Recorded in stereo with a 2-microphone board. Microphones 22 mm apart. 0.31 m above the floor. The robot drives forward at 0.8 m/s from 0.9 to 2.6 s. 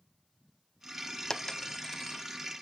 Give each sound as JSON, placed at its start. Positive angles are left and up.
{"t": 1.3, "sound": "a dropped coin", "side_deg": 20, "distance_m": 0.8}